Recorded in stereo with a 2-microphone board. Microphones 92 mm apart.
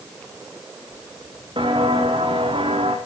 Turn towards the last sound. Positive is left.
turn(degrees=-75)  # may be behind; listen again after turning